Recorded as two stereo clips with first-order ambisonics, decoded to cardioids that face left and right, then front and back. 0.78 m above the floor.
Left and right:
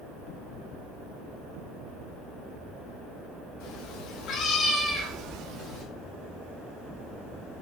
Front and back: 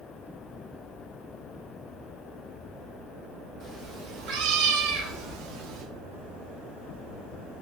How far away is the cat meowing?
About 1.3 m.